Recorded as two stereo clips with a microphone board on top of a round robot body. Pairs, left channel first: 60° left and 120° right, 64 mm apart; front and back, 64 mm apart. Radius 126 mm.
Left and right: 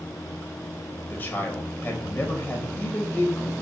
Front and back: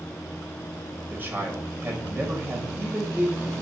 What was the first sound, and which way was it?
A man speaking, 125° left.